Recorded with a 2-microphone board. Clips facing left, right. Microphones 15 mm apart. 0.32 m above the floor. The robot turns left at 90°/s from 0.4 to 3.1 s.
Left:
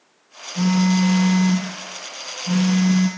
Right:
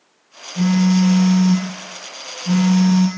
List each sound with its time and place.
0.6 s a phone buzzing: 120° left, 2.5 m; by 3.1 s 105° right, 2.5 m